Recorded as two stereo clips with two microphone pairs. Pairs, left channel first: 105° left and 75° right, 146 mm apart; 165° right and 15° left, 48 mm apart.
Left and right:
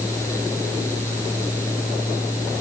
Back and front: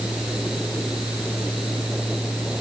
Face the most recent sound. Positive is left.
No sound to turn to.